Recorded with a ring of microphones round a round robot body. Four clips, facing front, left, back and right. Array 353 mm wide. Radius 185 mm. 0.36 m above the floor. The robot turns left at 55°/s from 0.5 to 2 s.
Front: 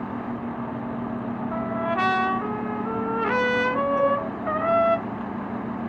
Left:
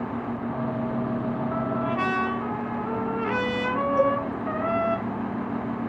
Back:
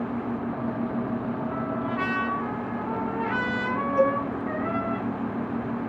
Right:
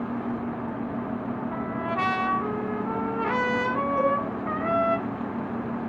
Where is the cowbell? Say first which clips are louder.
Left 2 dB, back 2 dB; 100° left, 3.5 m.